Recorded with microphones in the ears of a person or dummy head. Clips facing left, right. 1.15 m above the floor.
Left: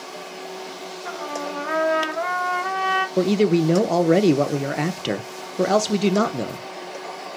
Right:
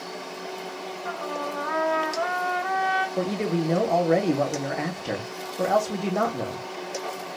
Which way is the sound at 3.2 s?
50° left (ahead or behind).